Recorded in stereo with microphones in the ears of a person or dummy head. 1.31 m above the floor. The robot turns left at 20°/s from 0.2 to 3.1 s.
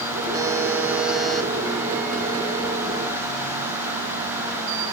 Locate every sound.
0.3 s a buzzer: 15° right (ahead or behind), 1.1 m; by 1.5 s 5° left (ahead or behind), 1.1 m